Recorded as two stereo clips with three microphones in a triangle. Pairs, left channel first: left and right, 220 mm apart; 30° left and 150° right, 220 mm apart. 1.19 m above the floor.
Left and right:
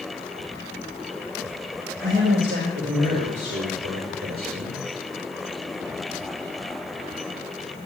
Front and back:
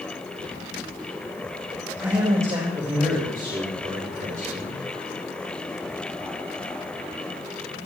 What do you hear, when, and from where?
2.0 s a man speaking: 70° right, 6.5 m; by 4.8 s 100° right, 4 m